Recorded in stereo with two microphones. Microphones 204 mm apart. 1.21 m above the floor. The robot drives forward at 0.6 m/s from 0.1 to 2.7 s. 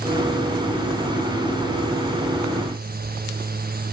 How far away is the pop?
No pop in this recording.